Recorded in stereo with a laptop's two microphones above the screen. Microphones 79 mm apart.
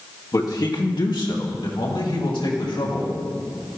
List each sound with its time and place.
0.3 s a man speaking: 45° left (ahead or behind), 1.4 m; by 3.2 s 80° left, 4.5 m